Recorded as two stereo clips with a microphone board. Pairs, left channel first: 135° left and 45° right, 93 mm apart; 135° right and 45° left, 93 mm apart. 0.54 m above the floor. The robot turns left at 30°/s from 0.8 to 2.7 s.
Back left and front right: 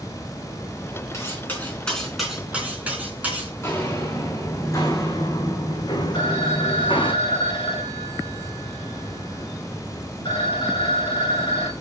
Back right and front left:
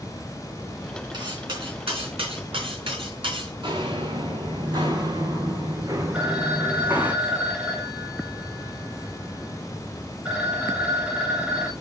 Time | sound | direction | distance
1.1 | cutlery clinking | 75° left | 3 m
3.6 | footsteps | 70° left | 3 m
6.1 | a phone ringing | 125° left | 2 m